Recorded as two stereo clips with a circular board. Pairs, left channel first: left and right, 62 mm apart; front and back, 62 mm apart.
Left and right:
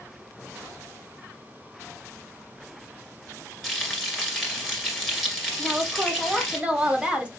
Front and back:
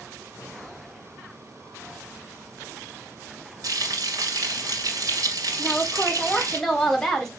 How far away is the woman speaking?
About 0.9 m.